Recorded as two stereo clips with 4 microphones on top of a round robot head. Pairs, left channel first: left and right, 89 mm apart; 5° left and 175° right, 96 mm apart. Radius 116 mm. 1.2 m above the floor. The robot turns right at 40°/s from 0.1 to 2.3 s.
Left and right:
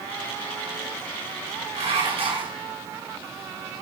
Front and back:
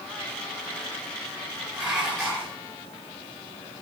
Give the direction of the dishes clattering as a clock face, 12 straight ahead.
3 o'clock.